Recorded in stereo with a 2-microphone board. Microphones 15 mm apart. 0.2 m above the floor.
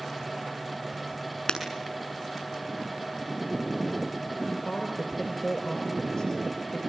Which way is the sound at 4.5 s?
35° left (ahead or behind).